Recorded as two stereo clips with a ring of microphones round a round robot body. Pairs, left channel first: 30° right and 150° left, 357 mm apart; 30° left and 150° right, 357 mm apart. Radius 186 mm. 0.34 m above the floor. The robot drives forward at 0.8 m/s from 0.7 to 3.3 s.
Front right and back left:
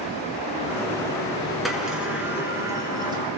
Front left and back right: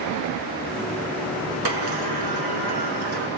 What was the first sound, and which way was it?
A sliding door, 120° right.